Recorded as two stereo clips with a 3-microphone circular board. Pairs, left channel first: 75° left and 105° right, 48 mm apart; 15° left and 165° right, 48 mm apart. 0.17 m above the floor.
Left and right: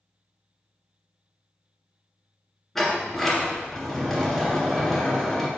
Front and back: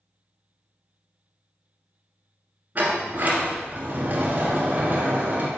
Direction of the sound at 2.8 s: 160° left.